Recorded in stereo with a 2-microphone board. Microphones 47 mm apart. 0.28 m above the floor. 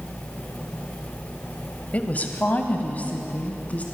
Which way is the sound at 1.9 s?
35° left (ahead or behind).